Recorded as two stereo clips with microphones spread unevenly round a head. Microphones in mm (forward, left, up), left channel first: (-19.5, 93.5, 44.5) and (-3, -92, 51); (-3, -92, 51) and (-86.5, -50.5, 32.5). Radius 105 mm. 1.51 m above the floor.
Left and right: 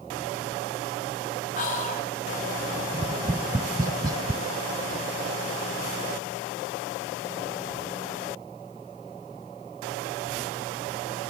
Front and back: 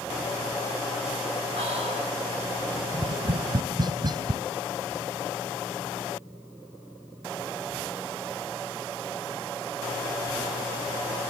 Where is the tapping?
155° right, 0.6 m.